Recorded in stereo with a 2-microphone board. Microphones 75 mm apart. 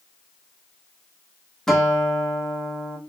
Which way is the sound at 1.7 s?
5° left (ahead or behind).